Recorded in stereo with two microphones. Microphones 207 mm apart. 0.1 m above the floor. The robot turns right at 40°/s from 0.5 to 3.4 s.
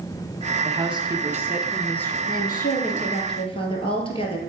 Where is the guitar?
I don't hear a guitar.